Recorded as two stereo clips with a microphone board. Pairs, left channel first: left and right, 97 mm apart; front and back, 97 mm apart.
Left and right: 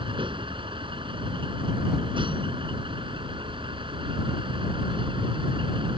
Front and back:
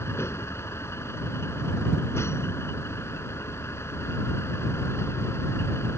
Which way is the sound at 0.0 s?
60° right.